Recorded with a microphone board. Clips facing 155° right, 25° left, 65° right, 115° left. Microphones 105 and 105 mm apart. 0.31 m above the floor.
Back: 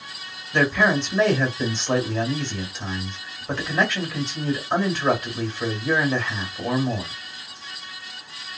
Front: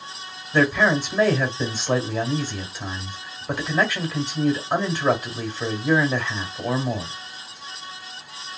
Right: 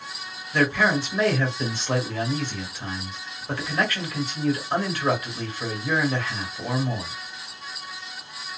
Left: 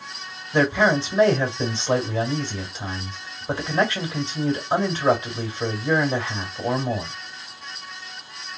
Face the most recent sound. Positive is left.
turn(degrees=100)